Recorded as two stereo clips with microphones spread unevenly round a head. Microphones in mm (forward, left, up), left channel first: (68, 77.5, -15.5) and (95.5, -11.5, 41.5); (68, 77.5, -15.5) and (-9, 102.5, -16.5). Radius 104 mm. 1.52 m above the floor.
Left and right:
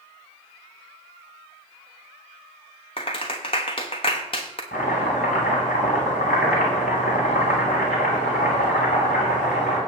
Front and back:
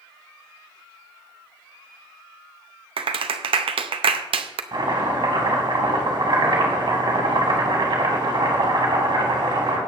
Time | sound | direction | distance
3.0 | a clap | 170° left | 0.6 m
4.7 | chopping | 165° left | 2.5 m